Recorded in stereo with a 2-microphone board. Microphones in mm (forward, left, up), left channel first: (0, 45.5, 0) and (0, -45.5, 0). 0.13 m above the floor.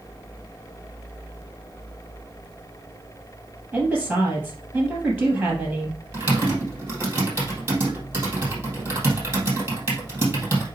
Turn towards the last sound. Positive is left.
turn(degrees=-25)  # may be behind; listen again after turning